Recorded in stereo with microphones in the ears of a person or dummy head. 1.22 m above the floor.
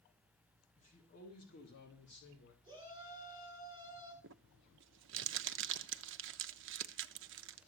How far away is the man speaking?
About 2 m.